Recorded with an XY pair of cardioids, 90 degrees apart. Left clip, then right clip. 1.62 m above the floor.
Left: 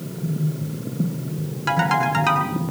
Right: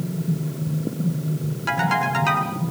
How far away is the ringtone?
About 7.5 m.